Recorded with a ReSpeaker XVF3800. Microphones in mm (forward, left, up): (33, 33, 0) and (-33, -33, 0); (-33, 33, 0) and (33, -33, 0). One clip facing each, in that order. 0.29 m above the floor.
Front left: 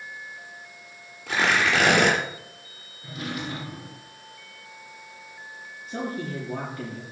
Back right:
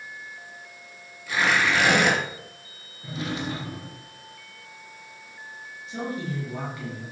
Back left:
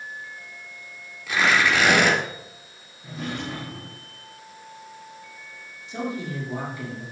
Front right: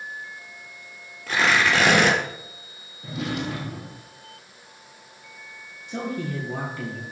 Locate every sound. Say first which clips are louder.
1.3 s tearing paper: even, even; 5° left, 4 m
3.0 s a drawer: back right 2 dB, front right 3 dB; 70° right, 2.5 m
5.9 s a man speaking: even, front right 1 dB; 5° right, 5 m